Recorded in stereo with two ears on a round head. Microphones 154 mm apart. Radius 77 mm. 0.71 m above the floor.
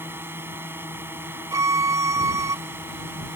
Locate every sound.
0.0 s a drone: 15° right (ahead or behind)
1.5 s a violin: 20° right (ahead or behind)